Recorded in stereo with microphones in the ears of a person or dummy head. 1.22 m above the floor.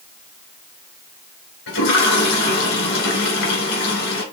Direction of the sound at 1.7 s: 75° left (ahead or behind).